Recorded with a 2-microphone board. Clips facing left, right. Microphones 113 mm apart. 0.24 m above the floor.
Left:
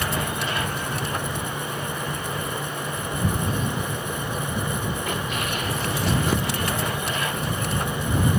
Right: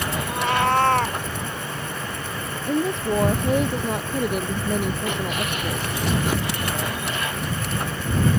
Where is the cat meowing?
75° right (ahead or behind).